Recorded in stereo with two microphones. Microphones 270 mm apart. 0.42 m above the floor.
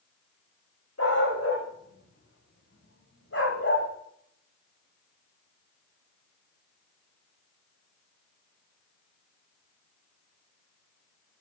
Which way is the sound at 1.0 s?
80° left.